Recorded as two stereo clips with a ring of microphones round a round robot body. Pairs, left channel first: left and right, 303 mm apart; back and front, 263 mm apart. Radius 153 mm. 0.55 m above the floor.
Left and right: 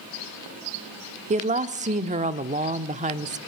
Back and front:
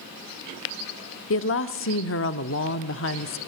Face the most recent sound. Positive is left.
turn(degrees=-150)